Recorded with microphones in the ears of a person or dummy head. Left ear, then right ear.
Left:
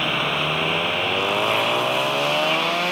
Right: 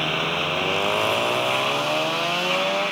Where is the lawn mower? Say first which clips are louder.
Left 2 dB; 5° left (ahead or behind).